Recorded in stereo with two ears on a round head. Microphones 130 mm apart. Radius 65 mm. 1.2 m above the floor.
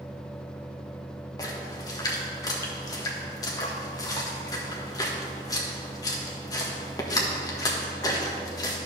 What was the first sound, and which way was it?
A splash, 25° left (ahead or behind).